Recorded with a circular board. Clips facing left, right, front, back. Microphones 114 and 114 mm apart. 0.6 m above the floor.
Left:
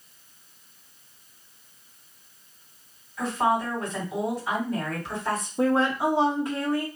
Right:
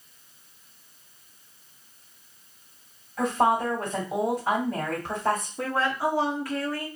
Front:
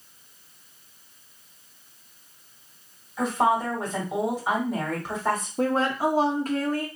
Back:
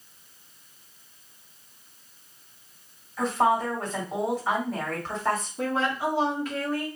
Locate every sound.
3.2 s a woman speaking: 75° right, 1.7 m
5.6 s a woman speaking: 30° left, 0.8 m